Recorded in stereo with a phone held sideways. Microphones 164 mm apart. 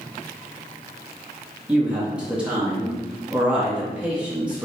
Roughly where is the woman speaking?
Centre.